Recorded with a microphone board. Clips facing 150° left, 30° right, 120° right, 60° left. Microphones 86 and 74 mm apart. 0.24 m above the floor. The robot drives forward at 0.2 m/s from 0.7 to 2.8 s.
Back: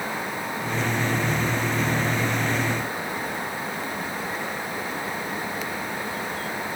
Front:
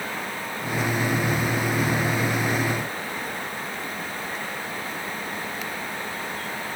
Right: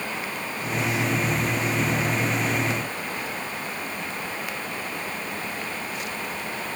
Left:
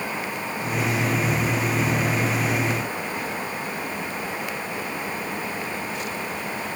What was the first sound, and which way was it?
Only background noise.